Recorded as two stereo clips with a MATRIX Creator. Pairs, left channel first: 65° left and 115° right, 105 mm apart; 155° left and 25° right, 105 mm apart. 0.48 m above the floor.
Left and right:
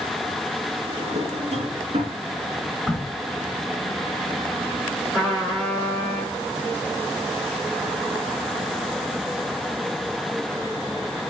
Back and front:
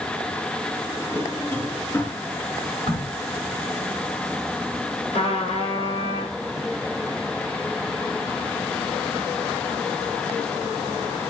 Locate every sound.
0.9 s a drawer: 135° right, 2.5 m
2.9 s a crack: 160° left, 6.5 m
5.1 s a trumpet: 160° left, 6 m